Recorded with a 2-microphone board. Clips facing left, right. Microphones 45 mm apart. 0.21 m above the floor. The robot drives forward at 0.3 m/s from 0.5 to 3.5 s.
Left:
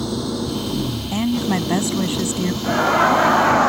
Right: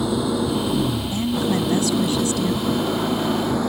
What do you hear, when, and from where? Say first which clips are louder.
0.0 s an engine running: right 3 dB; 20° right (ahead or behind); by 3.7 s 15° right (ahead or behind)
1.1 s a woman speaking: left 5 dB; 40° left (ahead or behind)
2.6 s laughter: left 6 dB; 85° left